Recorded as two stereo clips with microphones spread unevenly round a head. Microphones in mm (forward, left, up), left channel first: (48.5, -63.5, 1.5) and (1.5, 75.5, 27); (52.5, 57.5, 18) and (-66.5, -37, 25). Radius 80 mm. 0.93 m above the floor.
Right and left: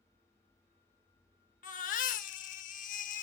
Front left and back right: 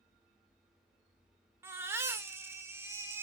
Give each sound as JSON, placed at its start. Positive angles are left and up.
{"t": 1.6, "sound": "a baby crying", "azimuth_deg": -75, "distance_m": 0.7}